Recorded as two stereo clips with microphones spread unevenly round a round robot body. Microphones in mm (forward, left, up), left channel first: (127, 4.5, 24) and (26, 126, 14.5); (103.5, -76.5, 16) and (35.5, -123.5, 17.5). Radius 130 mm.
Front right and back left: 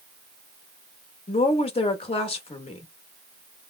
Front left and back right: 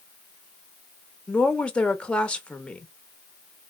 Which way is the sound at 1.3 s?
30° right.